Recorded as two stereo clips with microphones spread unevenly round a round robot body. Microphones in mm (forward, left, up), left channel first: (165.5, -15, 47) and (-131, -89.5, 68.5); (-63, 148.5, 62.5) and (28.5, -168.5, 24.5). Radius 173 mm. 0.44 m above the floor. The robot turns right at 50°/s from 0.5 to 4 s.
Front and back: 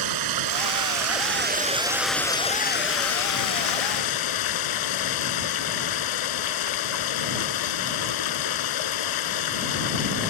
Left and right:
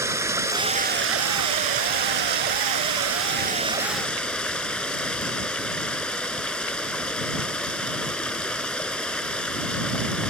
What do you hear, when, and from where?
0.0 s running water: 155° right; by 10.3 s 20° left